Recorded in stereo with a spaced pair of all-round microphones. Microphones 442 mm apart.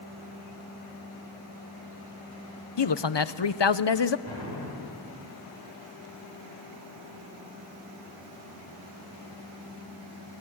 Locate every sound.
2.8 s a man speaking: 70° left (ahead or behind), 0.7 m
4.3 s an explosion: 70° right (ahead or behind), 7 m